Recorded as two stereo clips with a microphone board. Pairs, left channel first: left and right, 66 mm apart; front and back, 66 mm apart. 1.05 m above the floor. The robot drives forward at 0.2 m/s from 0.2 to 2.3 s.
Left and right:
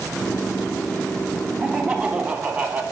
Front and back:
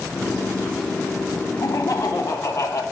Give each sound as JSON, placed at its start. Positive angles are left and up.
{"t": 1.6, "sound": "laughter", "azimuth_deg": -30, "distance_m": 0.8}